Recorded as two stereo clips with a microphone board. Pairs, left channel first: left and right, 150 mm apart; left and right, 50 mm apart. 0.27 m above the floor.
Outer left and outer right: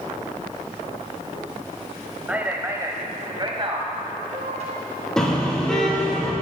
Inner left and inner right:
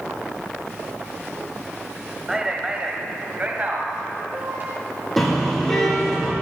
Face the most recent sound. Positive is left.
turn(degrees=5)  # may be behind; listen again after turning